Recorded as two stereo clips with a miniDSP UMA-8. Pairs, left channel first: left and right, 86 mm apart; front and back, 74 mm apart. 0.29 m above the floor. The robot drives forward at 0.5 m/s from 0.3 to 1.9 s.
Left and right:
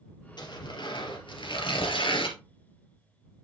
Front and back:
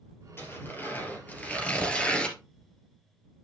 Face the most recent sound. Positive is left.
turn(degrees=75)